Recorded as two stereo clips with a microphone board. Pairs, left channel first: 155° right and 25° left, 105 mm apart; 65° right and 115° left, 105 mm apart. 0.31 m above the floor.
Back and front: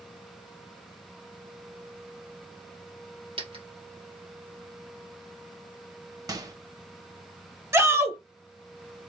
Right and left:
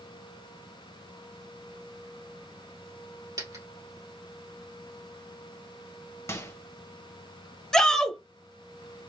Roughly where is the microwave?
Ahead.